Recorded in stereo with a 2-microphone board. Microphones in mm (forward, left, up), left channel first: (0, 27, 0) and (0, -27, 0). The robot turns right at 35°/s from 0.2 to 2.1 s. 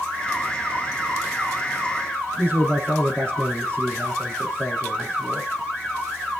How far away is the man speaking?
About 5 m.